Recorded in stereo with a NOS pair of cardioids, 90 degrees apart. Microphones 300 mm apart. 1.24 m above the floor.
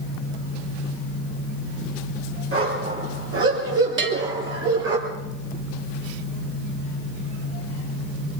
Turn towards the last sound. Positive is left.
turn(degrees=-40)